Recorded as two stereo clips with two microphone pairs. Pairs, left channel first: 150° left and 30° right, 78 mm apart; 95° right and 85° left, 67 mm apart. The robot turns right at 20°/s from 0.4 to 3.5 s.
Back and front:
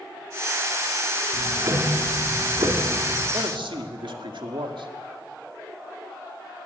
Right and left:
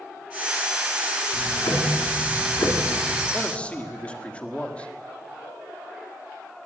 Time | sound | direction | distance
1.3 | ticking | 80° right | 3 m
3.3 | a man speaking | 25° right | 2.0 m